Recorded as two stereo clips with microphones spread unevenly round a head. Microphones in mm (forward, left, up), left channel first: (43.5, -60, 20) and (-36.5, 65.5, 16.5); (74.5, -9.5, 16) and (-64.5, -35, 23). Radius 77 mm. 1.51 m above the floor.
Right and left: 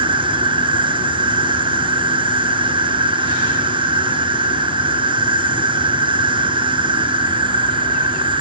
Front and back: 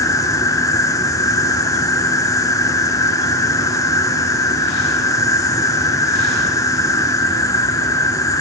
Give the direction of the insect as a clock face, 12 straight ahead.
10 o'clock.